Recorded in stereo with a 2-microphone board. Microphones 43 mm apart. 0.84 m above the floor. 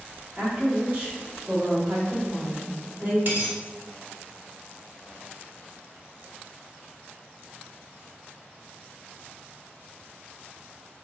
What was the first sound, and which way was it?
A woman speaking, 25° right (ahead or behind).